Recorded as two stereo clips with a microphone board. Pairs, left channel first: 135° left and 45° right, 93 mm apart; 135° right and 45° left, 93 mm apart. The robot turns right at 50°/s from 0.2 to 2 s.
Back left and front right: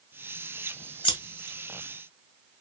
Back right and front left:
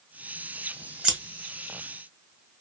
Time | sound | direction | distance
1.0 | scissors | 125° left | 1.0 m